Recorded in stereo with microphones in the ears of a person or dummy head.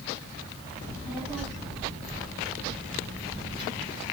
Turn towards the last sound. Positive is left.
turn(degrees=35)  # may be behind; listen again after turning